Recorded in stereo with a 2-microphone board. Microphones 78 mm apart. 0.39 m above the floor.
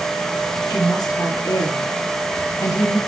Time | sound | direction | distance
0.7 | a woman speaking | 60° left (ahead or behind) | 7.5 m